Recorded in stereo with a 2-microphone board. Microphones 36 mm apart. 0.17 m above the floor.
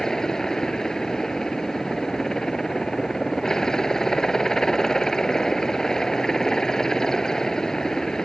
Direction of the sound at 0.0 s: 15° left (ahead or behind).